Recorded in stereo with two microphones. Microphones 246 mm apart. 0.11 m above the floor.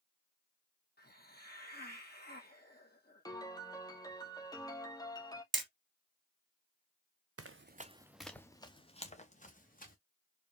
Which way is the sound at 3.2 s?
15° left (ahead or behind).